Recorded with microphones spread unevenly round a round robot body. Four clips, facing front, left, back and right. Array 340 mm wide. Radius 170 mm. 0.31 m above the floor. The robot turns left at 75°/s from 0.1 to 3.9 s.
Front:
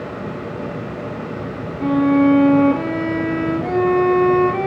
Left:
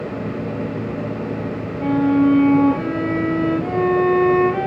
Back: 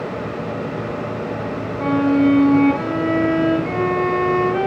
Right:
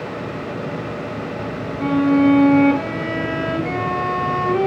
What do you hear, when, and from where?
1.8 s a violin: straight behind, 5.5 m; by 4.7 s 20° left, 5.5 m